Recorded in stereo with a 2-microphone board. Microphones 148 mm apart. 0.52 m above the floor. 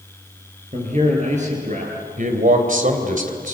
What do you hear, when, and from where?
0.7 s a man speaking: 50° right (ahead or behind), 8.5 m; by 1.9 s 60° right (ahead or behind), 8 m
2.2 s a man speaking: 65° right (ahead or behind), 3 m